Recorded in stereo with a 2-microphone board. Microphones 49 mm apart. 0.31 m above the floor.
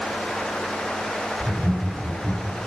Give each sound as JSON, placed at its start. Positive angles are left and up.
{"t": 1.4, "sound": "laughter", "side_deg": -40, "distance_m": 1.5}